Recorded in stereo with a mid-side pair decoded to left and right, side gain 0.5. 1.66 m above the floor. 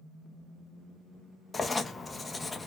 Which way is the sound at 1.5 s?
20° left.